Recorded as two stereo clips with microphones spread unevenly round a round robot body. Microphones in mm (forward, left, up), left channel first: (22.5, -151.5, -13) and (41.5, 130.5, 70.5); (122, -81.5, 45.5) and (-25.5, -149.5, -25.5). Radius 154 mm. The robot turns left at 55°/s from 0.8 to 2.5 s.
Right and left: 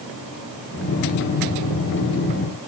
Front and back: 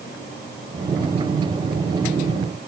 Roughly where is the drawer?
I don't hear a drawer.